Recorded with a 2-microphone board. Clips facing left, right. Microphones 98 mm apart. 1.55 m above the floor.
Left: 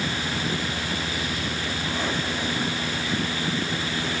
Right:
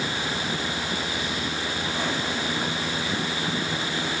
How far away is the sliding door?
I don't hear a sliding door.